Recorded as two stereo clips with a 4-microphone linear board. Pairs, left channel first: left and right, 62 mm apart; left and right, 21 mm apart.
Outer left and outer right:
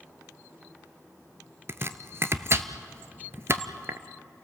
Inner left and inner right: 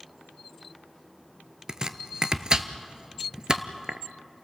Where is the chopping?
45° right (ahead or behind), 0.8 m.